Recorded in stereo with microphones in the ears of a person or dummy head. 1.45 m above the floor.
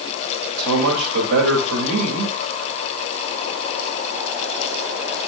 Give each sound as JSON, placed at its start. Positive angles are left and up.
{"t": 0.6, "sound": "a man speaking", "side_deg": -80, "distance_m": 2.5}